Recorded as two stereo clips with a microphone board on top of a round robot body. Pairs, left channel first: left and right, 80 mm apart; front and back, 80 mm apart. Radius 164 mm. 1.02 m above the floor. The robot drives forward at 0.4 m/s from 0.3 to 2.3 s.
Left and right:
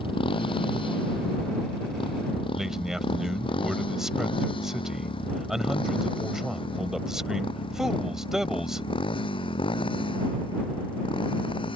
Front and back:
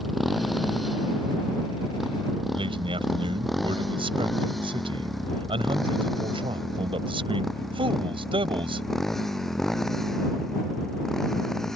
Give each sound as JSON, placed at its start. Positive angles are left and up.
{"t": 0.0, "sound": "a motorcycle", "azimuth_deg": 90}
{"t": 2.5, "sound": "a man speaking", "azimuth_deg": -175}